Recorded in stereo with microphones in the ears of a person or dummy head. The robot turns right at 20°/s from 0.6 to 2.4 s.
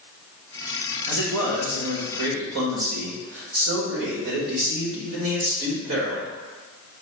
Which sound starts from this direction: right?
A man speaking, at 1.1 s.